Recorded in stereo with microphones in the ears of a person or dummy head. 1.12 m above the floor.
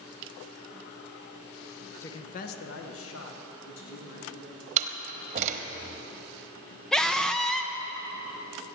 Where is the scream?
Centre (ahead or behind), 0.6 m.